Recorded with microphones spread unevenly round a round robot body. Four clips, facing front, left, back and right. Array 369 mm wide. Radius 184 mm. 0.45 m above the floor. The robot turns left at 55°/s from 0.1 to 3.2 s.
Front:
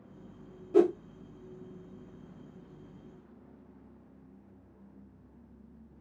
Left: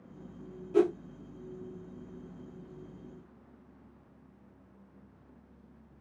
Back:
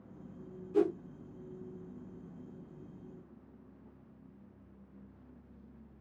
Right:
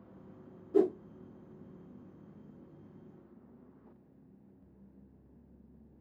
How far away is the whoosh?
About 1.3 m.